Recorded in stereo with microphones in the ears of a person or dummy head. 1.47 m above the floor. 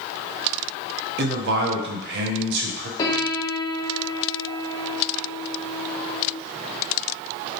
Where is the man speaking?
60° right (ahead or behind), 0.7 m.